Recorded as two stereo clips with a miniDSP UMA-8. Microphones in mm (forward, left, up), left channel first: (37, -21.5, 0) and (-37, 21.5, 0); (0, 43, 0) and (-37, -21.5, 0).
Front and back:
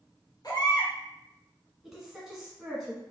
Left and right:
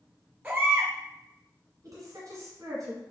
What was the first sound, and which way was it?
A baby crying, 55° right.